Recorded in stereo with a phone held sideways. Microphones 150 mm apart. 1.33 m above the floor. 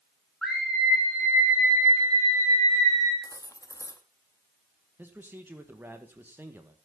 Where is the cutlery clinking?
25° left (ahead or behind), 0.9 m.